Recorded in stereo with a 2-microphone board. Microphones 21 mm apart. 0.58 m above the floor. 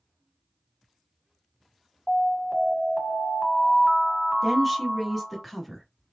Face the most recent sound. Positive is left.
turn(degrees=0)  # may be behind; listen again after turning